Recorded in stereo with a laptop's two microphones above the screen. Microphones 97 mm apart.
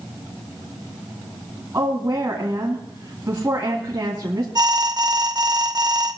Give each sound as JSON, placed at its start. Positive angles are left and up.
{"t": 1.7, "sound": "a woman speaking", "side_deg": -30, "distance_m": 2.5}
{"t": 4.5, "sound": "an alarm", "side_deg": -45, "distance_m": 0.5}